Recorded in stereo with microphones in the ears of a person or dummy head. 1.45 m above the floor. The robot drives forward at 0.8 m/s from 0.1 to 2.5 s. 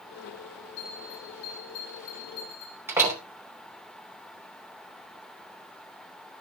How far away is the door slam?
About 3 m.